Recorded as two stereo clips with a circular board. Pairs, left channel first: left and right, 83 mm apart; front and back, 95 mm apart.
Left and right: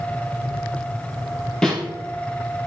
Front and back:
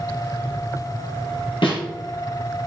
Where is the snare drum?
10° left, 3 m.